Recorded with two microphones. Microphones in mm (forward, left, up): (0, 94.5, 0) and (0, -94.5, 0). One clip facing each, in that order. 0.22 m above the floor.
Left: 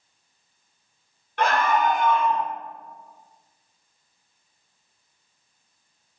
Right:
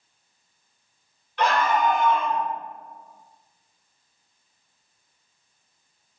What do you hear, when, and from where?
1.4 s a scream: 55° left (ahead or behind), 2.5 m; by 2.4 s 60° left (ahead or behind), 3 m